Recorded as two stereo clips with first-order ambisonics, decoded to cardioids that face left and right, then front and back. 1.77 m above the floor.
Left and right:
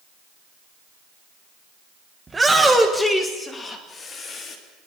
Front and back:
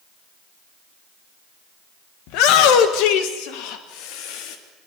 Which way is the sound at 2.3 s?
10° right.